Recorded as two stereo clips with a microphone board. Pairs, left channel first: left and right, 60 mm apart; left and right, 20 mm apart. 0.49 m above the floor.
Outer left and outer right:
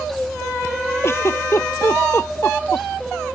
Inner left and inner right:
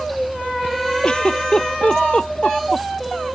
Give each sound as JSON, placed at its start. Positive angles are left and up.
{"t": 1.0, "sound": "a giggle", "side_deg": 45}